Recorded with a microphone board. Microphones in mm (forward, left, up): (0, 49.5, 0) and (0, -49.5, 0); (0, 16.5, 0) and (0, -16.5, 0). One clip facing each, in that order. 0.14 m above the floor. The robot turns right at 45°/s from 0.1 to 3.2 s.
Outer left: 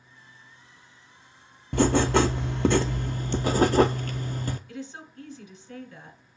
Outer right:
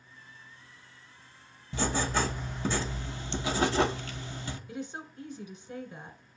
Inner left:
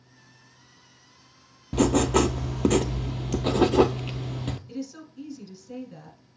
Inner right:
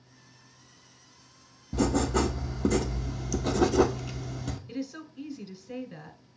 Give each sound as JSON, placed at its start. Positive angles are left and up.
{"t": 1.7, "sound": "writing", "azimuth_deg": 65, "distance_m": 0.5}
{"t": 4.7, "sound": "a woman speaking", "side_deg": -20, "distance_m": 1.3}